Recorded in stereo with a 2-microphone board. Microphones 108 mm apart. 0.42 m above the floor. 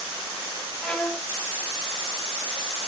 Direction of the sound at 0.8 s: 10° left (ahead or behind).